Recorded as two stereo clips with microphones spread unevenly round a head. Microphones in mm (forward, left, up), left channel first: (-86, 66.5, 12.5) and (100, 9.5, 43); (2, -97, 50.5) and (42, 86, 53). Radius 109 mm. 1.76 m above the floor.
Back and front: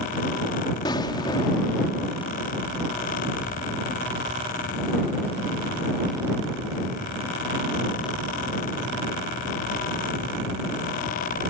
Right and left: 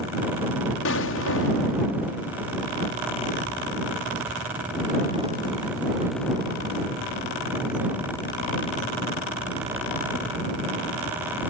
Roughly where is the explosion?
Behind right.